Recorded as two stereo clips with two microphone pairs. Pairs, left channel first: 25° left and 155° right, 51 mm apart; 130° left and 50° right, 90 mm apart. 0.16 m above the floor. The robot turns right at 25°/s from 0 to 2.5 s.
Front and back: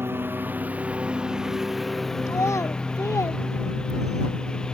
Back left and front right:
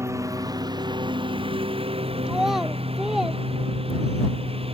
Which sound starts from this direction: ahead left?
A child speaking, at 2.3 s.